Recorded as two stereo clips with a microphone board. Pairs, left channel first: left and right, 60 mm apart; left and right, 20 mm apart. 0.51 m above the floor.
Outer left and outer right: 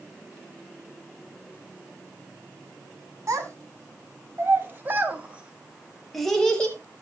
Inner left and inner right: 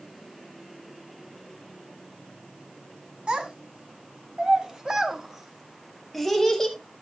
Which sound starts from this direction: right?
A child speaking, at 3.3 s.